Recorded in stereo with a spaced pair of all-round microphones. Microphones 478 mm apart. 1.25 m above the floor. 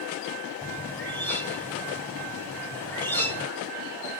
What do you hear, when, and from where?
0.6 s a bird: 5° left (ahead or behind), 1.5 m